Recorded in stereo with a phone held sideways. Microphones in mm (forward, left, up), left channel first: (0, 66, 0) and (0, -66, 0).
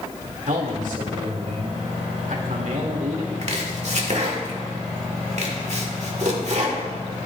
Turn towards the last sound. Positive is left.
turn(degrees=-60)  # may be behind; listen again after turning